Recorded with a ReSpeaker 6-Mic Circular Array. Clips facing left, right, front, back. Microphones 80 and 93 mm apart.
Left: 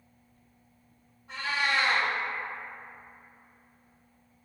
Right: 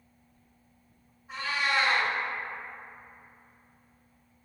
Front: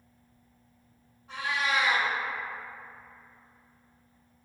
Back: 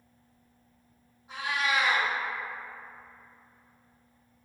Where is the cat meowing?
105° left, 1.8 m.